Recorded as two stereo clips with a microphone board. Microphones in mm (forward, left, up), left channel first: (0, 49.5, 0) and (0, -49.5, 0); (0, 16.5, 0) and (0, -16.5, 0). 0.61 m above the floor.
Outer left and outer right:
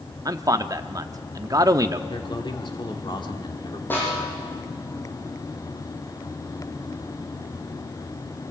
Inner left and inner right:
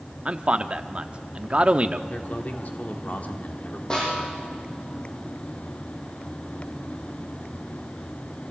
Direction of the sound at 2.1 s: 50° left (ahead or behind).